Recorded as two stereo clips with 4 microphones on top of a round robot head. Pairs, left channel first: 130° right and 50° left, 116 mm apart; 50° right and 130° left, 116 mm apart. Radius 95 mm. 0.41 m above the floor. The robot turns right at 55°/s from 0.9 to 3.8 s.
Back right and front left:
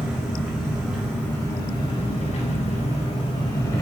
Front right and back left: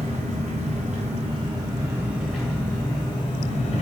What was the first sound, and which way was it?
An engine running, 135° left.